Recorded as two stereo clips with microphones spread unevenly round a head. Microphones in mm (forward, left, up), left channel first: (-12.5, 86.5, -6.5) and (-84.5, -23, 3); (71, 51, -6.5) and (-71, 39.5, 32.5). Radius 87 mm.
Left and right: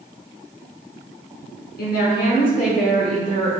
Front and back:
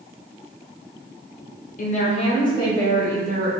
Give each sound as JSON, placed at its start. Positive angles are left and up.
{"t": 1.8, "sound": "a woman speaking", "azimuth_deg": 40, "distance_m": 1.1}